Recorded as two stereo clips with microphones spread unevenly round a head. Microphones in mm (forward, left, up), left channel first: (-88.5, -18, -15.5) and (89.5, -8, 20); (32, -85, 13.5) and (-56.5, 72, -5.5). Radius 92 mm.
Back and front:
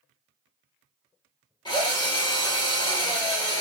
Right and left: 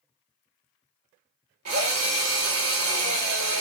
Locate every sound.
1.6 s a drill: 110° left, 1.5 m